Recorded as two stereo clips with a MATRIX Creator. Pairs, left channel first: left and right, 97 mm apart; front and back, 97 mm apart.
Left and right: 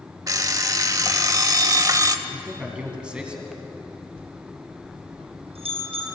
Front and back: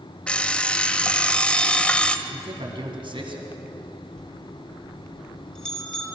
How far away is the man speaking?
About 2 m.